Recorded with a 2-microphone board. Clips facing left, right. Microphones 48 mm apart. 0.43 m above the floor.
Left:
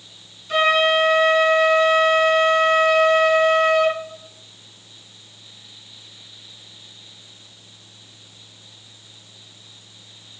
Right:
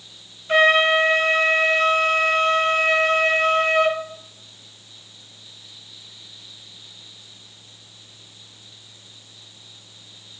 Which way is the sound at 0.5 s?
40° right (ahead or behind).